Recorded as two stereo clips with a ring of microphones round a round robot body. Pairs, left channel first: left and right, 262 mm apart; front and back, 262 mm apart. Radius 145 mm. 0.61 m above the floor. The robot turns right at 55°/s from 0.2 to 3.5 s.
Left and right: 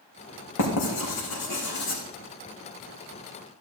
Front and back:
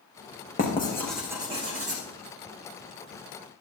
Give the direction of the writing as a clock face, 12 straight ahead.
10 o'clock.